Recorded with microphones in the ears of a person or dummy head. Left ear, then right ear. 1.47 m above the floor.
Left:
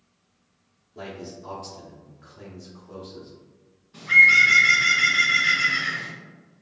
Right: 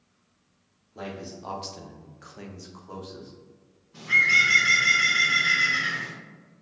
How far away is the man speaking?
About 0.9 m.